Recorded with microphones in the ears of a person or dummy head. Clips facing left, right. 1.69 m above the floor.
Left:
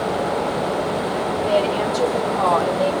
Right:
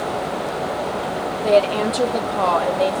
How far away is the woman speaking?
About 1.1 m.